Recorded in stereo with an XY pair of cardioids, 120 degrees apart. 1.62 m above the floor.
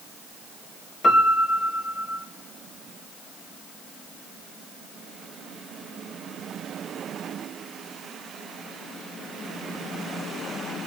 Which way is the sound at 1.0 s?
35° left.